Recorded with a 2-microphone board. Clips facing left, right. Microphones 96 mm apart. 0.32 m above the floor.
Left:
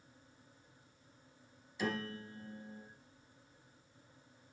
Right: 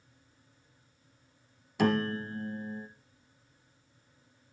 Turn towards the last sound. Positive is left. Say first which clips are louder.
# right 11 dB
turn(degrees=-65)  # may be behind; listen again after turning